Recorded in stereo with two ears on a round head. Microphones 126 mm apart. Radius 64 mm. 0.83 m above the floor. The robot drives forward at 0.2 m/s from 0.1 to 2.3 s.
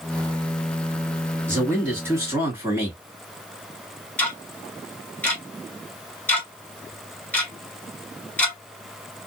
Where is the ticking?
10° left (ahead or behind), 1.4 m.